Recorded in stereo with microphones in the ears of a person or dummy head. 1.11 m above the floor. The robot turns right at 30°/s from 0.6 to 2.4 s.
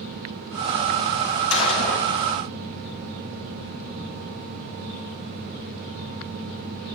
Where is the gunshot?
75° left (ahead or behind), 6 m; by 2.1 s 55° left (ahead or behind), 6 m.